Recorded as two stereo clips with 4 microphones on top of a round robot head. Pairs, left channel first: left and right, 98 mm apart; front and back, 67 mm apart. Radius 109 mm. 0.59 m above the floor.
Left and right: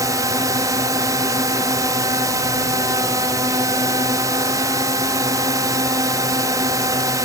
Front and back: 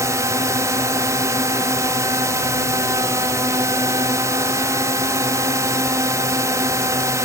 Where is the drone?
145° right.